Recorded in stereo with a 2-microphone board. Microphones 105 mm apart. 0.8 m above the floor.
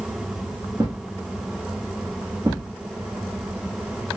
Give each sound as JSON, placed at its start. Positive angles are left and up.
{"t": 0.8, "sound": "a thud", "side_deg": -45, "distance_m": 1.1}